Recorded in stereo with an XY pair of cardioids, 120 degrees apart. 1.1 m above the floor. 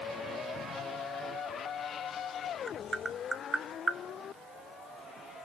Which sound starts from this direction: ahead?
Tapping, at 2.7 s.